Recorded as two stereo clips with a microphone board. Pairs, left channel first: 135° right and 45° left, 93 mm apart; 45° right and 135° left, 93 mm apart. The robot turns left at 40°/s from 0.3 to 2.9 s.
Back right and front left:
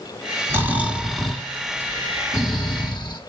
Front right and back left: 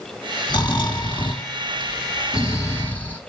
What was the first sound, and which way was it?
Snoring, 15° right.